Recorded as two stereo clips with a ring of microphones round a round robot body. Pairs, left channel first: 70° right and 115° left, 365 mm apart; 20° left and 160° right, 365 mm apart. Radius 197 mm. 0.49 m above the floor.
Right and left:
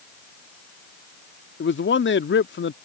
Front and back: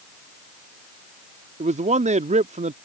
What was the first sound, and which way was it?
A man speaking, 100° right.